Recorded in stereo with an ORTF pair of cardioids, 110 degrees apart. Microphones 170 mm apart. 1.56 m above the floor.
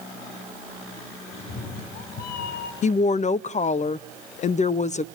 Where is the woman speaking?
45° left, 0.5 m.